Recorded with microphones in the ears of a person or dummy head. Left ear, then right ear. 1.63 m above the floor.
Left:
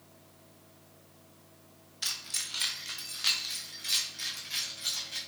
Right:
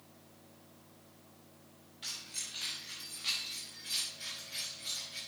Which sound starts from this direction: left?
Keys jangling, at 2.0 s.